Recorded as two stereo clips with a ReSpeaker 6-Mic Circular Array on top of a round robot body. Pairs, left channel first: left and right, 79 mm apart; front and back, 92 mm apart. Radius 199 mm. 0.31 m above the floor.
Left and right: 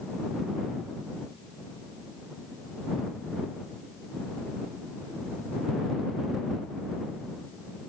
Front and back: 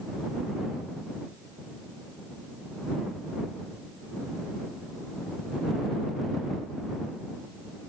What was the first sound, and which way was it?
Only background noise.